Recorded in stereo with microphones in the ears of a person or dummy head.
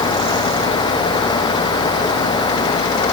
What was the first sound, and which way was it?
Only background noise.